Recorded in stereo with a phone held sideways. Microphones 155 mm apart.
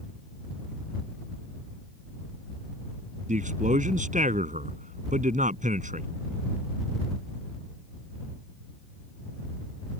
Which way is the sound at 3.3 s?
55° right (ahead or behind).